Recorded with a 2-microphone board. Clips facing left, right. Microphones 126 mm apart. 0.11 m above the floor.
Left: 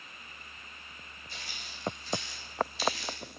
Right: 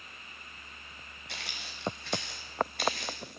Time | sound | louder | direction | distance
1.3 | footsteps | right 3 dB | 80° right | 3 m